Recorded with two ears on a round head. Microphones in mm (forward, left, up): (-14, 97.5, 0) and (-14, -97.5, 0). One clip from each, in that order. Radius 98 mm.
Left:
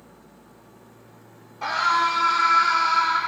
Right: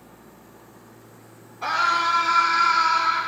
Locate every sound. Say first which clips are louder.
1.6 s a scream: even; 50° left (ahead or behind), 2.5 m; by 3.2 s 25° left (ahead or behind), 3 m